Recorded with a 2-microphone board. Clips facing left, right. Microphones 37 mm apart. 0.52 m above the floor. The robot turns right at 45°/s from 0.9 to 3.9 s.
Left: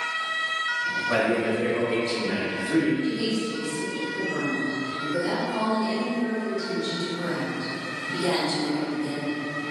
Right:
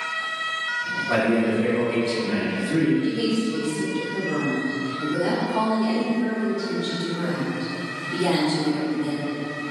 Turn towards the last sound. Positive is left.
turn(degrees=-60)